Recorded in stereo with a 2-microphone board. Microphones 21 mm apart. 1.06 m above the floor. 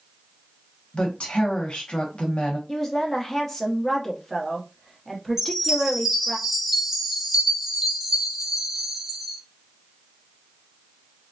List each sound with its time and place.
0.9 s a woman speaking: 60° left (ahead or behind), 0.9 m
2.7 s a woman speaking: 20° left (ahead or behind), 0.7 m
5.4 s a chime: 10° right (ahead or behind), 0.8 m